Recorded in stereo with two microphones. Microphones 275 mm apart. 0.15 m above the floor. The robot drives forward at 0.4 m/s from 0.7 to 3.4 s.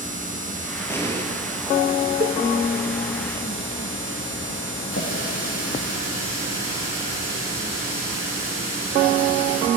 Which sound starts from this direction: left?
A running tap, at 4.9 s.